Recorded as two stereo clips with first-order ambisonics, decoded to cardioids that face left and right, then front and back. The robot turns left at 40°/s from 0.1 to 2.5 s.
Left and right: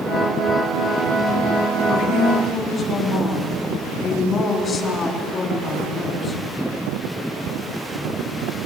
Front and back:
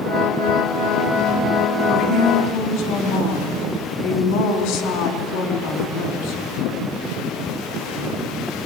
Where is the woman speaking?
45° left, 3.5 m; by 6.4 s 20° left, 3.5 m.